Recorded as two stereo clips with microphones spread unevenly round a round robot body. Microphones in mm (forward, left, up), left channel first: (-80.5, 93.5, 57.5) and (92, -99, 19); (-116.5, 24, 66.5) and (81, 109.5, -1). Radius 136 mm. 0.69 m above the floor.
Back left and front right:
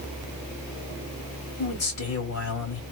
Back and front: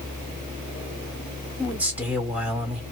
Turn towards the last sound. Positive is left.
turn(degrees=100)